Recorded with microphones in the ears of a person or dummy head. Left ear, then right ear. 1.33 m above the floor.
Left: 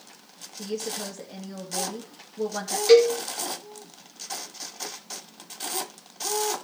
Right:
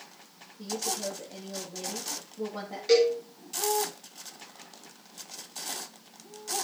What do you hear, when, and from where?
0.6 s a woman speaking: 50° left (ahead or behind), 1.9 m
2.9 s a cowbell: 35° left (ahead or behind), 2 m